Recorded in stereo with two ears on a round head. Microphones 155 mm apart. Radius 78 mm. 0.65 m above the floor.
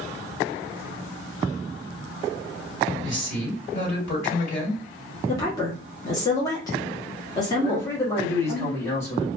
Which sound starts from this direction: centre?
A man speaking, at 7.6 s.